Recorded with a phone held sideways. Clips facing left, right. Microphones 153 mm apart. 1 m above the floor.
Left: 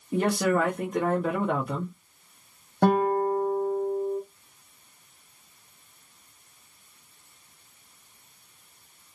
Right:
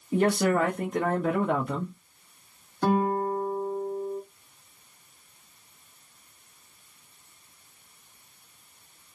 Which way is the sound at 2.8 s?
70° left (ahead or behind).